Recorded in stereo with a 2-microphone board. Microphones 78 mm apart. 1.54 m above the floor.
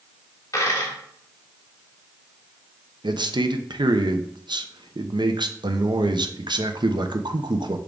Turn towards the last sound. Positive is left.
turn(degrees=-70)  # may be behind; listen again after turning